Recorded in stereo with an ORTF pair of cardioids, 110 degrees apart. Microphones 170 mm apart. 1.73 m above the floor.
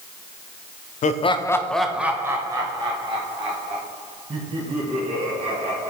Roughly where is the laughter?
Ahead left.